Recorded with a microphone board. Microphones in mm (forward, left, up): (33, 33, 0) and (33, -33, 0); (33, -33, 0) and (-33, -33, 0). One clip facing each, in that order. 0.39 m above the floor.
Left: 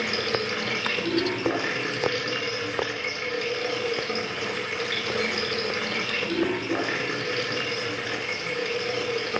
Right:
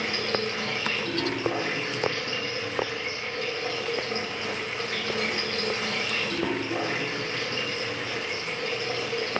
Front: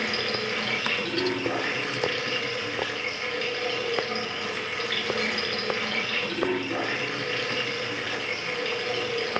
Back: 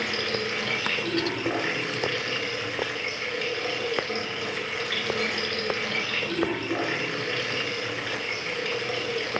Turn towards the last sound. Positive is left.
turn(degrees=95)